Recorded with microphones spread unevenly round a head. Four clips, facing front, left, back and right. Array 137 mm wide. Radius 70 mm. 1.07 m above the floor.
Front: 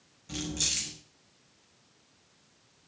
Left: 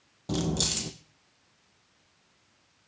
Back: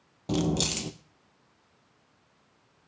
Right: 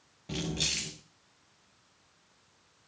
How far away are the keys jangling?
About 0.6 m.